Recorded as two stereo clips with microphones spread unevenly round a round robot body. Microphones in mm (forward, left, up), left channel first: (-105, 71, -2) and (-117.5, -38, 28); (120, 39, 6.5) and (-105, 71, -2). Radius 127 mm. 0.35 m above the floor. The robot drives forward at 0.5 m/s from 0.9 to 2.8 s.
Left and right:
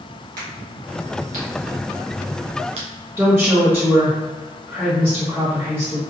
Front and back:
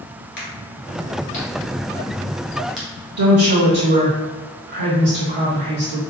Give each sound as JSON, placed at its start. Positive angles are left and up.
{"t": 0.4, "sound": "a crack", "azimuth_deg": -65, "distance_m": 1.6}
{"t": 3.2, "sound": "a woman speaking", "azimuth_deg": -175, "distance_m": 1.6}